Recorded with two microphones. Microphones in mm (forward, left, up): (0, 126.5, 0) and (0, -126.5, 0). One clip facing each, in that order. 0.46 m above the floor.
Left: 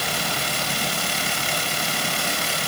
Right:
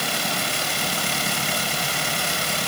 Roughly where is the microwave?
I don't hear a microwave.